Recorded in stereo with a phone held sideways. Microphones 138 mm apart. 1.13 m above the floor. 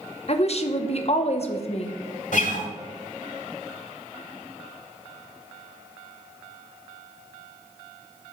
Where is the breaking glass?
No breaking glass in this recording.